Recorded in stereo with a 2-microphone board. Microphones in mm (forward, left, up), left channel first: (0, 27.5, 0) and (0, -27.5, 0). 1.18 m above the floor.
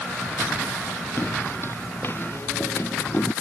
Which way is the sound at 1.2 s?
45° left (ahead or behind).